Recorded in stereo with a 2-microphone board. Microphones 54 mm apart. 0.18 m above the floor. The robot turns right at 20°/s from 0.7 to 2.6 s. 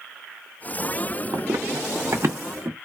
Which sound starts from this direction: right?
Running footsteps, at 1.3 s.